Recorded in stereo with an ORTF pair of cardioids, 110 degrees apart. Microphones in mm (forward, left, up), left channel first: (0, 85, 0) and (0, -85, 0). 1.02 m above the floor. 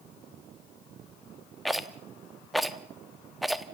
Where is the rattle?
Straight ahead, 1.1 m.